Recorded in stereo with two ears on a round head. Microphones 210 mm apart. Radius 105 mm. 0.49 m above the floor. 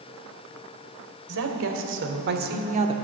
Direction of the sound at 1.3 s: 65° right (ahead or behind).